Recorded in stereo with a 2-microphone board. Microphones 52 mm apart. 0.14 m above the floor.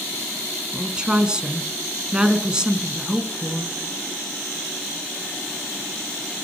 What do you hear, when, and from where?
0.7 s a woman speaking: 15° right (ahead or behind), 1.1 m